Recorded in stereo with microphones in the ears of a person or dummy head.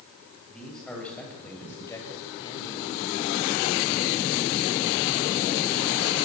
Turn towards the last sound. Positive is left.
turn(degrees=50)  # may be behind; listen again after turning